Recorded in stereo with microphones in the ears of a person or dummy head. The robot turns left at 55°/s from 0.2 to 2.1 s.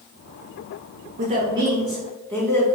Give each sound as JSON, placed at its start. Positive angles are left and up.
{"t": 1.2, "sound": "a woman speaking", "azimuth_deg": -135, "distance_m": 1.0}